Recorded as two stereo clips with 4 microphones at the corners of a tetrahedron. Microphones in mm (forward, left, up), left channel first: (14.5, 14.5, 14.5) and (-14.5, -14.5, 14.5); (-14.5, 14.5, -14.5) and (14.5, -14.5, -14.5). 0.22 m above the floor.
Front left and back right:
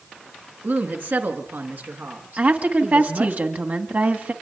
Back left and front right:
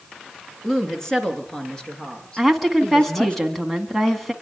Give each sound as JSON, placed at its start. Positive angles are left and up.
{"t": 0.6, "sound": "a woman speaking", "azimuth_deg": -145, "distance_m": 3.5}
{"t": 2.4, "sound": "a woman speaking", "azimuth_deg": -140, "distance_m": 2.0}